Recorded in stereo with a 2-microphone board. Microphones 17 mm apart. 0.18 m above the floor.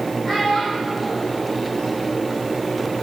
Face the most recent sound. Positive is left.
turn(degrees=75)  # may be behind; listen again after turning